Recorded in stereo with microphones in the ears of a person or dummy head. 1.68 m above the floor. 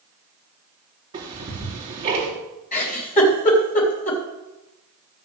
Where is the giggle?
45° left (ahead or behind), 3.5 m.